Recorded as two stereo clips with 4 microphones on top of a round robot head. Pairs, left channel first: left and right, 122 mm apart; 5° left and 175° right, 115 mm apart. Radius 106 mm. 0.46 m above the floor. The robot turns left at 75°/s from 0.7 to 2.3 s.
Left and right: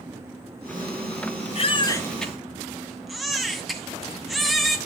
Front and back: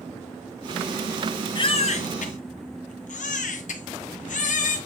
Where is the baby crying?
55° left, 2 m; by 4.8 s straight ahead, 2 m.